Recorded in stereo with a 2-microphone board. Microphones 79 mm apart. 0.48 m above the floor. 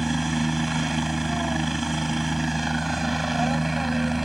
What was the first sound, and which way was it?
A helicopter, centre (ahead or behind).